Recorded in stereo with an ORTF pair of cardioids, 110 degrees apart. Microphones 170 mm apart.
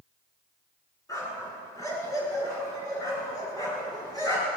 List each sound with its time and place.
1.1 s a dog barking: 20° left, 9 m